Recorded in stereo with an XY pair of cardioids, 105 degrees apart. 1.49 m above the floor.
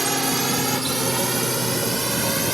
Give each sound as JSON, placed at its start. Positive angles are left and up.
{"t": 0.0, "sound": "a drone", "azimuth_deg": -15}